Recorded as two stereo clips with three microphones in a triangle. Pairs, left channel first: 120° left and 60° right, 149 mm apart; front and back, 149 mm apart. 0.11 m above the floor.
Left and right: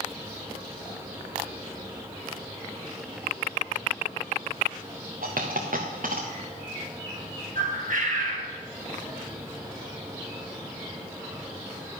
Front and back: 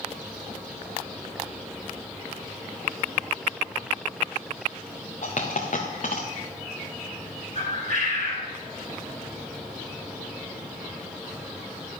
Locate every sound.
5.2 s a dropped coin: 35° right, 2.5 m
7.5 s a bird: 35° right, 4 m